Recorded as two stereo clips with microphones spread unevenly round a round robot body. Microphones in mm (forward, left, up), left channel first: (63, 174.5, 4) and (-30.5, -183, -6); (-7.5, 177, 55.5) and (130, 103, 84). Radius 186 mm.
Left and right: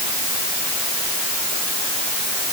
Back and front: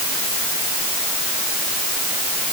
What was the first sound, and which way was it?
Only background noise.